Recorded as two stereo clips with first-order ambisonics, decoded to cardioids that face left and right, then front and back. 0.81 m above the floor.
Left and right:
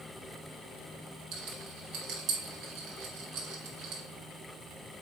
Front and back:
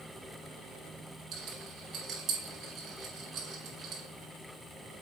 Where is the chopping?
I don't hear chopping.